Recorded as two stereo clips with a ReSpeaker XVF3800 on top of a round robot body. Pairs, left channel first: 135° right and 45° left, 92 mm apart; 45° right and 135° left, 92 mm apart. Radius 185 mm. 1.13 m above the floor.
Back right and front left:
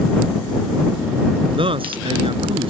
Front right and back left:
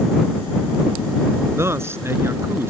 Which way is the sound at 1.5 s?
70° left.